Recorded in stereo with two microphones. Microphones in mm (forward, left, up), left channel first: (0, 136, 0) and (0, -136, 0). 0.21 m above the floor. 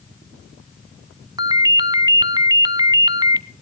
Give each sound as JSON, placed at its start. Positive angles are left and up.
{"t": 1.4, "sound": "a ringtone", "side_deg": -15, "distance_m": 0.6}